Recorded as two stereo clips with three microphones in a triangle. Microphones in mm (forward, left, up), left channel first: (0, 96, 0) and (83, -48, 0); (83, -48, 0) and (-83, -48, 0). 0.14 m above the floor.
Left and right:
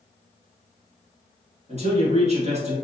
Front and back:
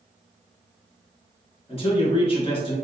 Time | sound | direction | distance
1.7 | a man speaking | 35° right | 1.4 m